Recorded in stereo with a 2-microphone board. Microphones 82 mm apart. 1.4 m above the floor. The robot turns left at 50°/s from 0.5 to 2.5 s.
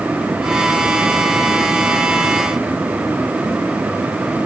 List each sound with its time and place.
Only background noise.